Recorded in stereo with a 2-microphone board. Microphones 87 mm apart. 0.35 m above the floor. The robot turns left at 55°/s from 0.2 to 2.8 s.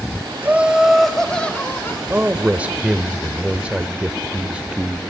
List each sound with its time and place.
0.4 s laughter: 145° right, 1.1 m; by 2.0 s 130° left, 1.1 m
2.1 s a man speaking: 20° right (ahead or behind), 0.8 m; by 5.0 s 15° right (ahead or behind), 0.8 m